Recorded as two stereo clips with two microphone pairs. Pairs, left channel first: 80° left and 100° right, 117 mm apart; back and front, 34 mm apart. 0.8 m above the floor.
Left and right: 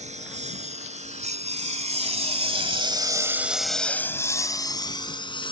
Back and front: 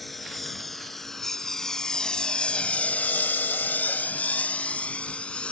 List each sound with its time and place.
0.0 s a lawn mower: 95° right; by 5.5 s 125° left